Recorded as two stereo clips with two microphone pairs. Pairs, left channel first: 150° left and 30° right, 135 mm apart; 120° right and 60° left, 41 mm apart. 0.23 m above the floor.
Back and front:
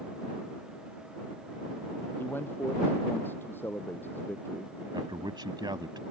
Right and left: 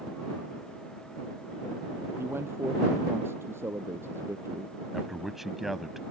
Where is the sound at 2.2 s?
75° left.